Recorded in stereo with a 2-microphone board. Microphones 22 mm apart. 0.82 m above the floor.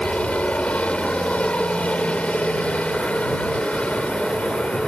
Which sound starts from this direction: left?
A helicopter, at 0.0 s.